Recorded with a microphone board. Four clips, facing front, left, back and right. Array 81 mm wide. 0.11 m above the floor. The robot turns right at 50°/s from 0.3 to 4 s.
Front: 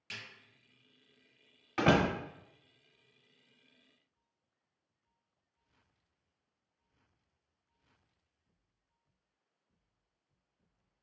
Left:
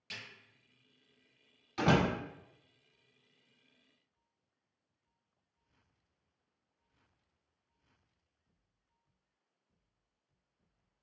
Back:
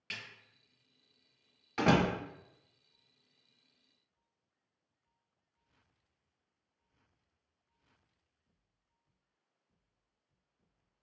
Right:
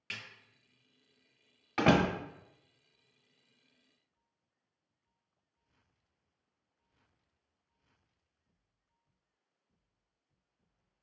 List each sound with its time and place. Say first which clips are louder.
0.1 s a snare drum: right 3 dB, back 2 dB; 115° right, 1.7 m
1.8 s a door slam: right 2 dB, front 1 dB; 80° right, 1.1 m; by 2.1 s 65° right, 1.1 m